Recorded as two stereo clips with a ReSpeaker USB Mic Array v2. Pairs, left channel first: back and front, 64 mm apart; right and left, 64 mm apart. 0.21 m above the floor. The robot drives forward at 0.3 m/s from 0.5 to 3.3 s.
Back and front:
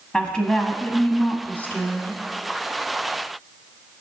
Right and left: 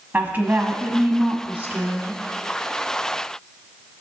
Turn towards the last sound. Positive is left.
turn(degrees=155)